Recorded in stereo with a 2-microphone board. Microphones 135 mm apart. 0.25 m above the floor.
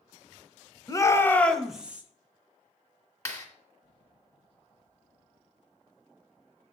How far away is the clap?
About 2.5 m.